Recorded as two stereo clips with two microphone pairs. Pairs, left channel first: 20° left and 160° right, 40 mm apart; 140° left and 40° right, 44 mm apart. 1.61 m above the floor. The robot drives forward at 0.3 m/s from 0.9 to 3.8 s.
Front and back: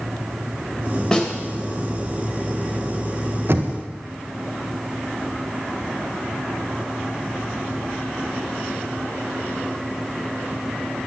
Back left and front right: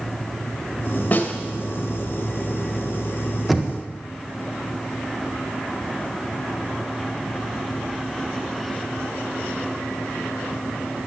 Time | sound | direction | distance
1.1 | a snare drum | 95° left | 2.5 m
3.5 | knocking | 130° right | 1.4 m